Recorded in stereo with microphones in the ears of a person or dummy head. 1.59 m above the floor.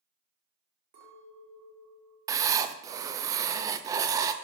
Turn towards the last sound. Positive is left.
turn(degrees=-20)  # may be behind; listen again after turning